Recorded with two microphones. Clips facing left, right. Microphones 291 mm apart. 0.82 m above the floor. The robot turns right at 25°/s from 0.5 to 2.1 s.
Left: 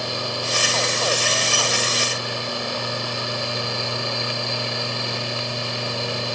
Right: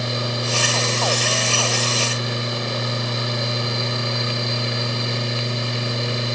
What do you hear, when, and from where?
Only background noise.